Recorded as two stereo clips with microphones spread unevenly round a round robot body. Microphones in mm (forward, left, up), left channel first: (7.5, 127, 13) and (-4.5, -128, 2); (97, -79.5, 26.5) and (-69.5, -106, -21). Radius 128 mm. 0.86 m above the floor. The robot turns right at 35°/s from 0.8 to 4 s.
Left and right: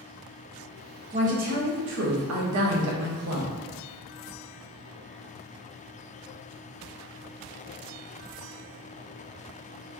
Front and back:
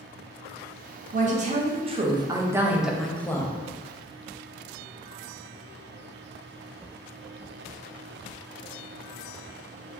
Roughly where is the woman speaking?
Behind right.